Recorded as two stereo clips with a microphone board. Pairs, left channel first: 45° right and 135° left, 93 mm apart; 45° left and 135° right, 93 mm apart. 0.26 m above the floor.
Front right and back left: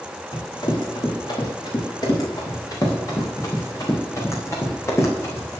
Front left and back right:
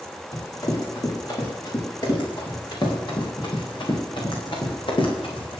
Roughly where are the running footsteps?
Ahead.